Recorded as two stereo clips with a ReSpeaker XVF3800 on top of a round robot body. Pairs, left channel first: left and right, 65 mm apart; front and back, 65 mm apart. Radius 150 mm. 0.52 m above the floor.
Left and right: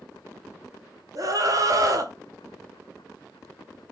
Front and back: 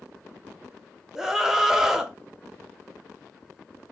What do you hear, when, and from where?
1.1 s a scream: 100° right, 1.5 m